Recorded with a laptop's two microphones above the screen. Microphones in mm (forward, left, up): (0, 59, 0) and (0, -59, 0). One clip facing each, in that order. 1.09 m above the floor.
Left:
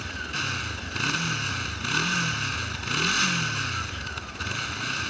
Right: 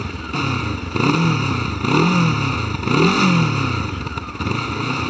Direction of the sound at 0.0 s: 60° right (ahead or behind).